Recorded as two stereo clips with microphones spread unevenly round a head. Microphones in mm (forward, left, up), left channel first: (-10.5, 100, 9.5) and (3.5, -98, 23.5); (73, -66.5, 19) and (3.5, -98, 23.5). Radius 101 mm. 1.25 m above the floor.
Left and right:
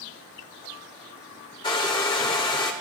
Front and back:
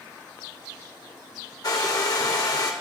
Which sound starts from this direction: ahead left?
A hair dryer, at 1.6 s.